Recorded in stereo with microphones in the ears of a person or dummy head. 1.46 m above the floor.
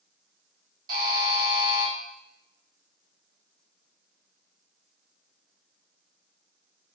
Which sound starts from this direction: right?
A buzzer, at 0.9 s.